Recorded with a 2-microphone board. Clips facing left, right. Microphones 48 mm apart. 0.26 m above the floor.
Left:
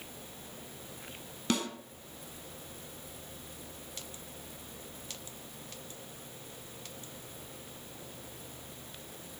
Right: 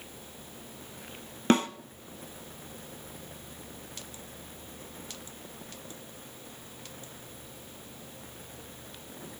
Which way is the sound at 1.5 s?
40° right (ahead or behind).